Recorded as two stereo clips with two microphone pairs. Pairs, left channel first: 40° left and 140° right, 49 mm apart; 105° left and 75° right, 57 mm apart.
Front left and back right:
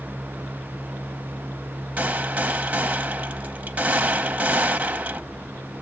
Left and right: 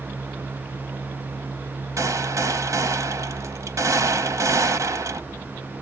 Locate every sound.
2.0 s a gunshot: 80° right, 1.0 m